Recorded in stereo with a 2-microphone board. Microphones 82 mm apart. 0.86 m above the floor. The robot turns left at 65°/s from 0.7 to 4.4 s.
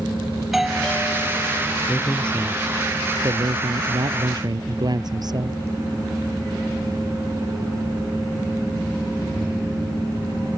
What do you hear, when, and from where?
0.4 s a doorbell: straight behind; by 1.8 s 110° left
1.9 s a man speaking: 35° left; by 5.6 s 130° right